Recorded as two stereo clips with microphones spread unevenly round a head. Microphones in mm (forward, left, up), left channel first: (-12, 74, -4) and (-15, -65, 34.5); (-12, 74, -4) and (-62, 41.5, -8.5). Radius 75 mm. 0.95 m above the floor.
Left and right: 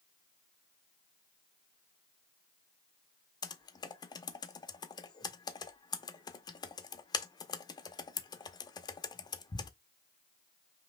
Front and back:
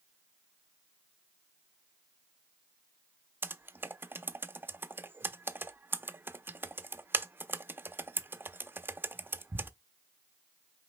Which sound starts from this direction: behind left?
Typing on a keyboard, at 3.4 s.